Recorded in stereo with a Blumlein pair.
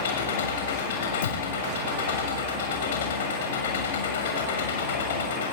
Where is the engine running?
55° left, 6.5 m.